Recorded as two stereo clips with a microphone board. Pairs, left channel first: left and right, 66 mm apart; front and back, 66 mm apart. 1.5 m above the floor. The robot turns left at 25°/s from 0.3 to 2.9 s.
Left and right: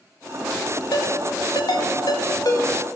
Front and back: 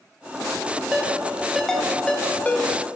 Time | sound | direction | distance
0.9 | a ringtone | 105° left | 1.6 m